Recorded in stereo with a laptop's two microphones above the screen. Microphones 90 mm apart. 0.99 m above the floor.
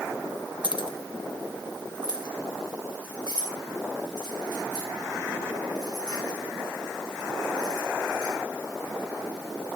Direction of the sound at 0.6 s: 70° left (ahead or behind).